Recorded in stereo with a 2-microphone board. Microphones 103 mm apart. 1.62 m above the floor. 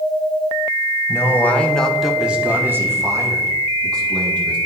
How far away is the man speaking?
About 1.4 m.